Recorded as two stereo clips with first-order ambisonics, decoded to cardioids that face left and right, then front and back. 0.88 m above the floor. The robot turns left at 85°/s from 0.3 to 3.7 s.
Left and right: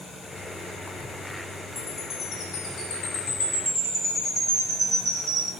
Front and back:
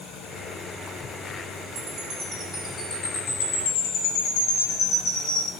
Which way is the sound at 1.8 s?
Straight behind.